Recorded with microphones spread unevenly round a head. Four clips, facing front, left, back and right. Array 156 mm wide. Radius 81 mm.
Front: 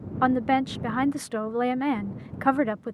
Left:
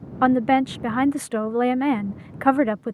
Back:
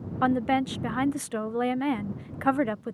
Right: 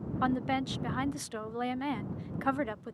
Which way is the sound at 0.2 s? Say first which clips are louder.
Left 13 dB, front 2 dB; 85° left.